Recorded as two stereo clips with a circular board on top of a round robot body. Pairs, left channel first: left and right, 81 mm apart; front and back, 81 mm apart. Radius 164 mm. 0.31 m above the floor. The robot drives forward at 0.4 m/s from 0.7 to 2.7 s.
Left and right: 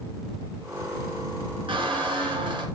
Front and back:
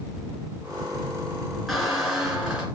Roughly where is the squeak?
Right.